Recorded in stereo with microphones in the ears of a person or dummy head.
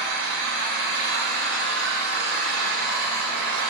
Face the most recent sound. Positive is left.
turn(degrees=-75)  # may be behind; listen again after turning